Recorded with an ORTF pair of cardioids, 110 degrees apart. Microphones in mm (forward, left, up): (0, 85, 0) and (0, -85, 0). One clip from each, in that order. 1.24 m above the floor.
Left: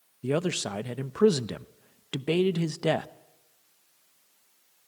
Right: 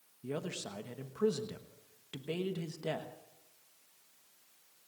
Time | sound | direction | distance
0.2 | a man speaking | 55° left | 0.9 m